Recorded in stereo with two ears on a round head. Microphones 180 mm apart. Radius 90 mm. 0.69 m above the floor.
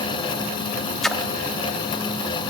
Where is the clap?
I don't hear a clap.